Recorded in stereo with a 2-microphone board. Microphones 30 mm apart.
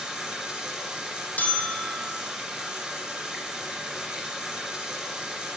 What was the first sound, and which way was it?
Running water, 20° right (ahead or behind).